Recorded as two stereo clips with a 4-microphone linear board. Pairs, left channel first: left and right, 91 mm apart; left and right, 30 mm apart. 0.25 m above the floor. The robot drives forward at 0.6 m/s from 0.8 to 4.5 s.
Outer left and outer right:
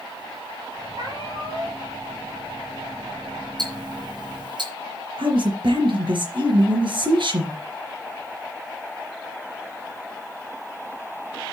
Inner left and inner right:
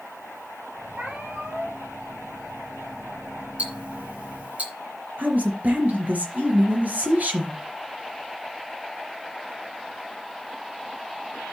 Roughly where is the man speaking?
Right.